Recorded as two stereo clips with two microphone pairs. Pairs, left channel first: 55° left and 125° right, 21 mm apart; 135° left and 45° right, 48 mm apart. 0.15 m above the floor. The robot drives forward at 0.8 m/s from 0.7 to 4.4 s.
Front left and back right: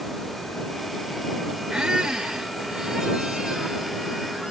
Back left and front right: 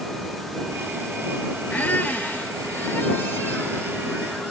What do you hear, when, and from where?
1.7 s a squeak: 175° right, 0.8 m; by 4.5 s straight behind, 3 m